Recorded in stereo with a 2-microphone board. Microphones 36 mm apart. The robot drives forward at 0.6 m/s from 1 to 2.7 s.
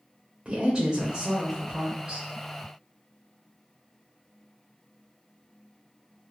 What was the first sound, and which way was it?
A woman speaking, 30° right (ahead or behind).